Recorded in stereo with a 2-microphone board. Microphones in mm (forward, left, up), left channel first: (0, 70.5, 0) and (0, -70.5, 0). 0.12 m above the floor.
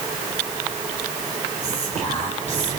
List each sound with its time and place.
1.6 s whispering: 55° right (ahead or behind), 3 m